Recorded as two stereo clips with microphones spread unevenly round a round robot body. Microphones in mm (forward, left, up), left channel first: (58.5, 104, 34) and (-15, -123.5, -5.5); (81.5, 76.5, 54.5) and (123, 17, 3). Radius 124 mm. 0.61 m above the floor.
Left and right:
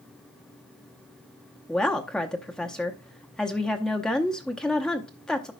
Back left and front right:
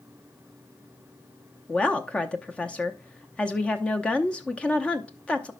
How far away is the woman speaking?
About 0.6 m.